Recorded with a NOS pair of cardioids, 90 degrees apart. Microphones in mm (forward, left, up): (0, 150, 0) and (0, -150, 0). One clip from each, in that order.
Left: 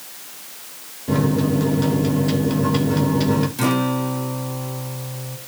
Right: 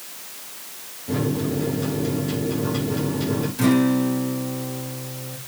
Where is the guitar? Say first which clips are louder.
Right 1 dB; 30° left, 3 m.